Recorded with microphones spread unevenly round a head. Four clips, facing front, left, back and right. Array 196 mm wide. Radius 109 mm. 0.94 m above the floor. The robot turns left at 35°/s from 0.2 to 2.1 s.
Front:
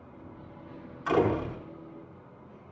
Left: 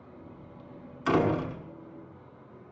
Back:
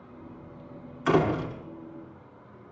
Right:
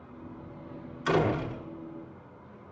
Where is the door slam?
155° left, 7.5 m; by 1.6 s 135° left, 7.5 m.